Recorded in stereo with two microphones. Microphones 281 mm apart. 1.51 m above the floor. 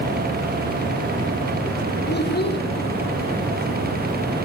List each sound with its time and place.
2.1 s a child speaking: 35° left (ahead or behind), 1.6 m